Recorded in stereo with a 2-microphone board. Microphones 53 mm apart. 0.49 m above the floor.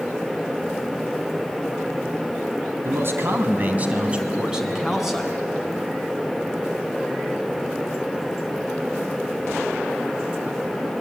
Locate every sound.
2.8 s a man speaking: 50° right (ahead or behind), 3 m; by 5.3 s 5° left (ahead or behind), 3.5 m